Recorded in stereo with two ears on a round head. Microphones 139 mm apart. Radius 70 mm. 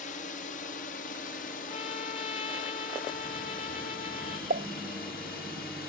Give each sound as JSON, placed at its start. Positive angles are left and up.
{"t": 0.0, "sound": "a drone", "side_deg": 50}
{"t": 1.7, "sound": "a trumpet", "side_deg": 45}
{"t": 4.5, "sound": "a pop", "side_deg": -60}